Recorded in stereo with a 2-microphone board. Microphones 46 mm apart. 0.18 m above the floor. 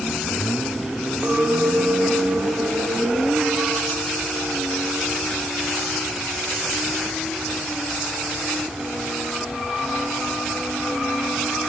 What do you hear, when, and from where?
1.2 s a clink: 45° right (ahead or behind), 3.5 m